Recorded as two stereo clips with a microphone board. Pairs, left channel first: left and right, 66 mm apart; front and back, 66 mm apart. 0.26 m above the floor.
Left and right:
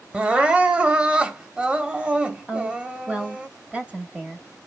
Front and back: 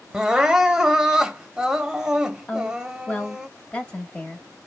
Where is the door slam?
I don't hear a door slam.